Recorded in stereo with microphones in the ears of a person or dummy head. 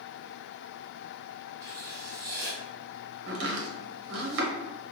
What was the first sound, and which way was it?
Writing, 15° right (ahead or behind).